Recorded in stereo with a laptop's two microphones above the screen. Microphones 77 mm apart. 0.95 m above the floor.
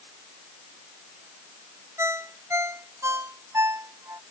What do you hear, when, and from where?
2.0 s a ringtone: 40° right (ahead or behind)